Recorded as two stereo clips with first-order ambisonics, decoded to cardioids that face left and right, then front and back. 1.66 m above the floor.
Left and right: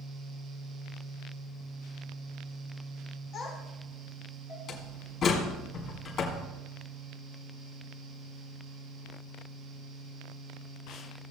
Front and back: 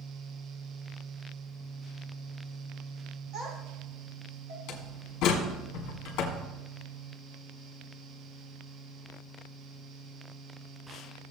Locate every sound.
3.3 s a child speaking: 140° left, 4.5 m; by 4.6 s 135° left, 3.5 m
4.7 s a door slam: 35° left, 1.9 m